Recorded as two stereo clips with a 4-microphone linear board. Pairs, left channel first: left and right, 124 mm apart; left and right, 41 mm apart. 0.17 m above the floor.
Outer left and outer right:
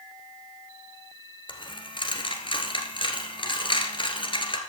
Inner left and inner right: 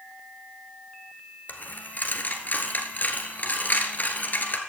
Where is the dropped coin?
45° left (ahead or behind), 1.5 m.